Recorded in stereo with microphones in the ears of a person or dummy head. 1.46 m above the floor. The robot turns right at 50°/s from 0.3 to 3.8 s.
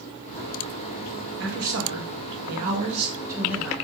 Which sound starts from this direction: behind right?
A man speaking, at 1.4 s.